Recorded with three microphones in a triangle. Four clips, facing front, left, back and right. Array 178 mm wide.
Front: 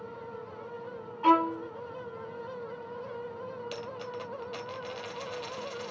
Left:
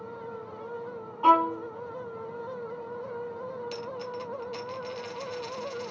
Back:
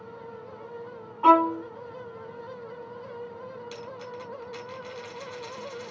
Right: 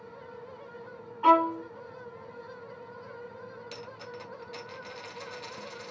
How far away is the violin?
About 1.0 m.